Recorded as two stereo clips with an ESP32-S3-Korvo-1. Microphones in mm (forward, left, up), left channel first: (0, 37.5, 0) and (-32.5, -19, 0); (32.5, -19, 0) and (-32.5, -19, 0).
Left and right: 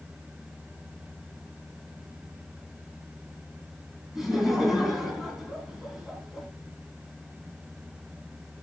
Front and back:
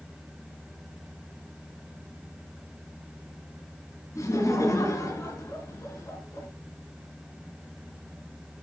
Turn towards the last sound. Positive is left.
turn(degrees=-35)